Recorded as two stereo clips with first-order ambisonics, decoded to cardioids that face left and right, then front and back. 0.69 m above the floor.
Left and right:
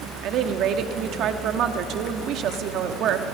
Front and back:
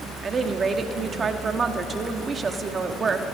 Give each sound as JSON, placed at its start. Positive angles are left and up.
{"t": 0.2, "sound": "a woman speaking", "azimuth_deg": -115, "distance_m": 1.2}